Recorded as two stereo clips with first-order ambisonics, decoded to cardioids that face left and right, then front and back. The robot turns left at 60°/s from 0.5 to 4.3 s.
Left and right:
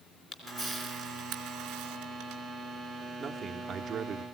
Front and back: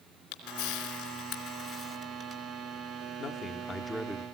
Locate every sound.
0.3 s a camera shutter: 10° right, 3 m; by 2.4 s 125° right, 3 m
3.2 s a man speaking: 25° right, 0.7 m; by 4.2 s 90° right, 0.7 m